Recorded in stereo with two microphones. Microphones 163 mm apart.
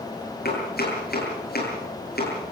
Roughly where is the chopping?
Left.